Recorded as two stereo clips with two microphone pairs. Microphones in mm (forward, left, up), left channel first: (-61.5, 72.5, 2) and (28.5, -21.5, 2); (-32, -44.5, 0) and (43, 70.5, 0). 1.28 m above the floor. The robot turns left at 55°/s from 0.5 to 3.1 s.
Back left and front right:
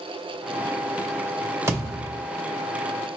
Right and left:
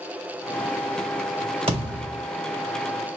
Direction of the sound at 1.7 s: 20° left.